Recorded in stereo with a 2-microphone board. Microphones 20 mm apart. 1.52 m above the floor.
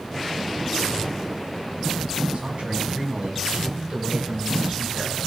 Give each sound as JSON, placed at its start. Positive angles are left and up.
{"t": 2.3, "sound": "a man speaking", "side_deg": -80, "distance_m": 5.0}